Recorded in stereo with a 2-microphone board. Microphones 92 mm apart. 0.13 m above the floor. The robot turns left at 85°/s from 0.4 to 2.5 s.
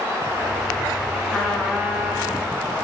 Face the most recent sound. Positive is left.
turn(degrees=-85)